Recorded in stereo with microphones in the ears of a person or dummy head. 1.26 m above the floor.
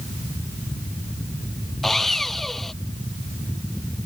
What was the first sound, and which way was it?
Sawing, 5° left (ahead or behind).